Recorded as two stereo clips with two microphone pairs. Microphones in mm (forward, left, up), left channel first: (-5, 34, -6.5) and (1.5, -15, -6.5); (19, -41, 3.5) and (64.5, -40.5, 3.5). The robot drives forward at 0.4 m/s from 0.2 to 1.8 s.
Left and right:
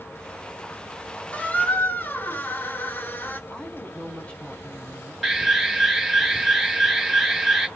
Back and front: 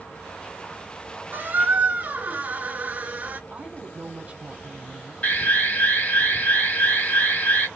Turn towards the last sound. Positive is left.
turn(degrees=-165)